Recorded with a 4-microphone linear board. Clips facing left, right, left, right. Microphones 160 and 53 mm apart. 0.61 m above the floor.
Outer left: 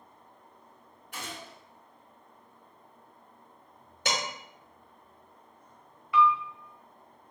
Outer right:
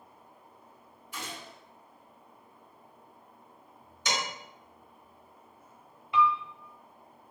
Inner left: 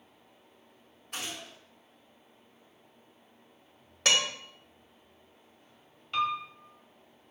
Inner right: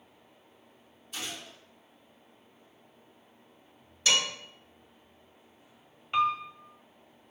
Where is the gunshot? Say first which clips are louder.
Even, even; 75° left (ahead or behind), 2 m.